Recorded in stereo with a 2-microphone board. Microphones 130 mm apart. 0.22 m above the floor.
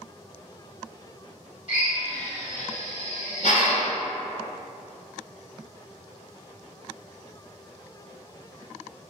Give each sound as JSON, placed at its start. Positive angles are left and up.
{"t": 1.7, "sound": "a drill", "side_deg": 60, "distance_m": 1.1}